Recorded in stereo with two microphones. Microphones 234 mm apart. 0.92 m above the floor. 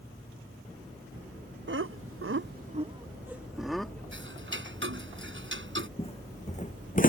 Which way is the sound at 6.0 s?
25° left (ahead or behind).